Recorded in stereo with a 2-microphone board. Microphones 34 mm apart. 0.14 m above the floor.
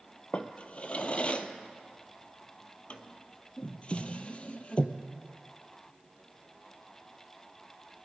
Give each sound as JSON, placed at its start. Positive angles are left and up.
{"t": 0.3, "sound": "a drawer", "side_deg": 35, "distance_m": 0.8}